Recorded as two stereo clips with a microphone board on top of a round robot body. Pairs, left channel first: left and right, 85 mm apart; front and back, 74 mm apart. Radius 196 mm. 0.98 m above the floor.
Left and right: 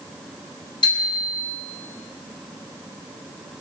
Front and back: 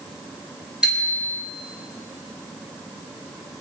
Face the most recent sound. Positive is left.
turn(degrees=100)